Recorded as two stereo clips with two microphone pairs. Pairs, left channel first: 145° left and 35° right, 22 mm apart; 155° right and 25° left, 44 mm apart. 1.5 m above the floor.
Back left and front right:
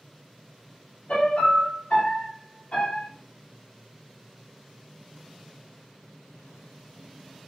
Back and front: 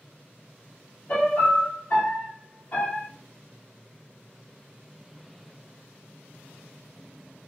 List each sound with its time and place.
1.1 s a piano: 160° left, 1.8 m